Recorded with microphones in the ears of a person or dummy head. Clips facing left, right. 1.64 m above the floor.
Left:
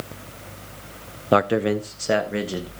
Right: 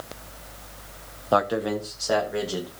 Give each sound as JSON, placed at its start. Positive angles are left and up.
{"t": 1.3, "sound": "a man speaking", "side_deg": 35, "distance_m": 0.5}